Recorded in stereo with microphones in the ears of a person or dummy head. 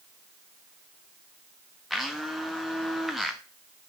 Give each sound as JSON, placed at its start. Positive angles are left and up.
{"t": 1.9, "sound": "a blender", "side_deg": 0, "distance_m": 1.0}